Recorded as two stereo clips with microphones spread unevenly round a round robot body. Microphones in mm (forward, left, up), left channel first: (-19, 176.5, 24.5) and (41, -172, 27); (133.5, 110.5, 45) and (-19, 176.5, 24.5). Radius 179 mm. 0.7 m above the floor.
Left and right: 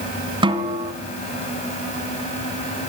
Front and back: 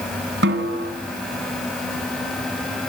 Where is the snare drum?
160° right, 2.5 m.